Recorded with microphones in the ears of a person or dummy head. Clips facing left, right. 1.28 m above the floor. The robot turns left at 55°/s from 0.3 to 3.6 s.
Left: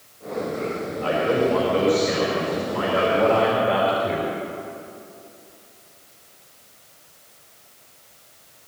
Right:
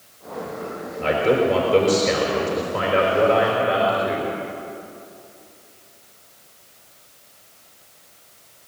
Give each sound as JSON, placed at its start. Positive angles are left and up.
{"t": 1.0, "sound": "a man speaking", "azimuth_deg": -25, "distance_m": 4.5}